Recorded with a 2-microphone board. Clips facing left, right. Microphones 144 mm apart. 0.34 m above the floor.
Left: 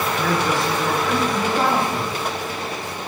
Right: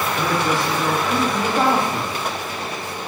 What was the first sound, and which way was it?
A man speaking, 25° right (ahead or behind).